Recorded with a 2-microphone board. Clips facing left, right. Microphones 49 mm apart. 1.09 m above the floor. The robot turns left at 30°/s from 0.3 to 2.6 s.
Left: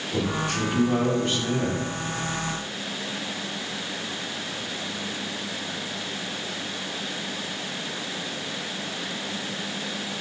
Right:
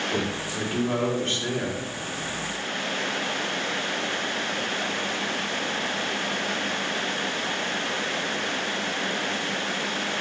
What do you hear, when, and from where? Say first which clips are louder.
0.1 s a man speaking: left 2 dB; 15° right, 3 m; by 1.9 s 60° right, 3 m